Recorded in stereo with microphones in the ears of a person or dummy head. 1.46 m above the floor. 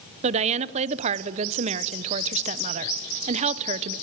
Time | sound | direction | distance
0.2 | a woman speaking | 35° right (ahead or behind) | 1.0 m